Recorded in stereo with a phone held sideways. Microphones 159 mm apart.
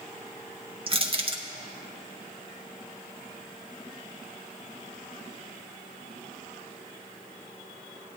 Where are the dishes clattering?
No dishes clattering in this recording.